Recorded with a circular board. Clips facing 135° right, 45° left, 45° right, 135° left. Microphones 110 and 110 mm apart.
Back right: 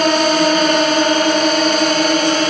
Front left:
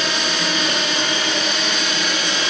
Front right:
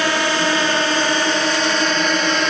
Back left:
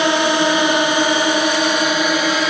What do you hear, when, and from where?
0.0 s a drone: 160° right; by 2.5 s 145° right